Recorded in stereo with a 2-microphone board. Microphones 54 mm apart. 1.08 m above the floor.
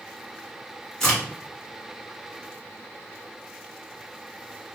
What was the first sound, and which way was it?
A crack, 10° left (ahead or behind).